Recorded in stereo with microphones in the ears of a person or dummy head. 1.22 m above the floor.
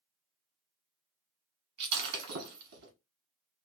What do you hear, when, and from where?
1.8 s breaking glass: 60° right (ahead or behind), 0.9 m